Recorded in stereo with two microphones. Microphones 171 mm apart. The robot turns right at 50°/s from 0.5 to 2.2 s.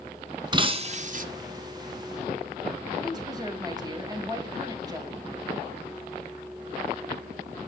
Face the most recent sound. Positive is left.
turn(degrees=-25)  # may be behind; listen again after turning